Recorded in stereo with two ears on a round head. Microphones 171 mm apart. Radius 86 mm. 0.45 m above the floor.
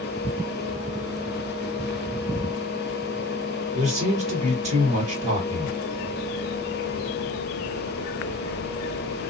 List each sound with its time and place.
3.7 s a man speaking: 35° right (ahead or behind), 1.8 m